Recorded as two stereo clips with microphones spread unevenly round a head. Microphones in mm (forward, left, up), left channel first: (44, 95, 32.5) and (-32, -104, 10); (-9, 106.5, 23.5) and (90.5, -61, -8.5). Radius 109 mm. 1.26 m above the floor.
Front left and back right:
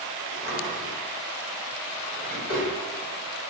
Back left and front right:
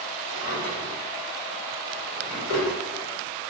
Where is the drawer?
140° left, 1.5 m.